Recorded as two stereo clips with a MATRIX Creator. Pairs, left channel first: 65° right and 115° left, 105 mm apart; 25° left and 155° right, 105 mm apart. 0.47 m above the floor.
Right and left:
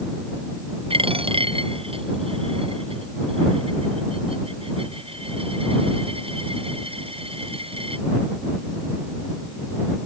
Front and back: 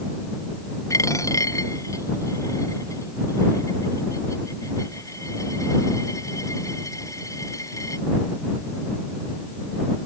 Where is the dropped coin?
85° left.